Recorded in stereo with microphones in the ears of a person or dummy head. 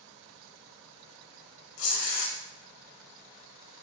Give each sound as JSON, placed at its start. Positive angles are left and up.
{"t": 1.8, "sound": "tearing paper", "side_deg": 70, "distance_m": 0.8}